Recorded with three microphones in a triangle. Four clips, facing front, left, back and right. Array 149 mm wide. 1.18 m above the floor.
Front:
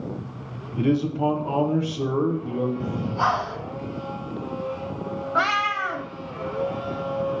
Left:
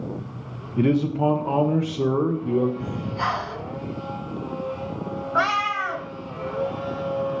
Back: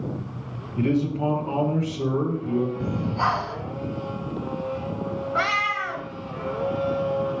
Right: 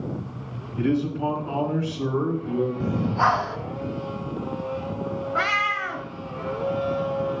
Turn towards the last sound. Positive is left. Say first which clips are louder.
# left 4 dB, front 3 dB
turn(degrees=55)